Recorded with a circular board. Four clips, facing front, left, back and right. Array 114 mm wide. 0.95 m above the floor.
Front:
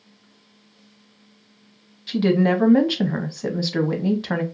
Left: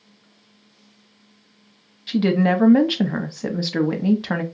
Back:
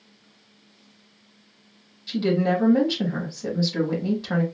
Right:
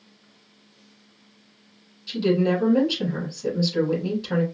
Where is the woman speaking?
60° left, 0.7 m.